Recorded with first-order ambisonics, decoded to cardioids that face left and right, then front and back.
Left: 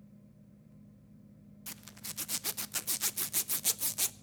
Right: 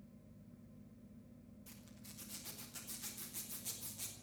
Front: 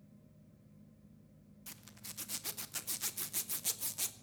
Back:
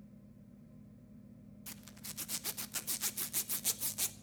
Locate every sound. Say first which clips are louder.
1.7 s a zipper: left 14 dB, back 1 dB; 100° left, 0.6 m